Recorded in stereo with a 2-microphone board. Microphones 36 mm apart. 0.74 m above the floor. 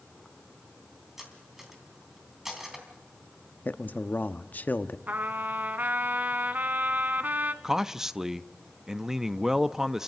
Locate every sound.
1.2 s cutlery clinking: 10° right (ahead or behind), 3 m
3.6 s a man speaking: 50° left (ahead or behind), 0.8 m
5.1 s a trumpet: 55° right (ahead or behind), 1.0 m
7.6 s a man speaking: 15° right (ahead or behind), 0.5 m